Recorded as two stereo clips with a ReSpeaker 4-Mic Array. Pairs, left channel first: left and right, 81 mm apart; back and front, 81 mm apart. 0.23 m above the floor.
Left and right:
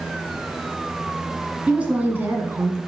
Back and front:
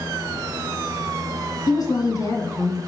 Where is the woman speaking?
165° right, 2 m; by 2.8 s 135° right, 2 m.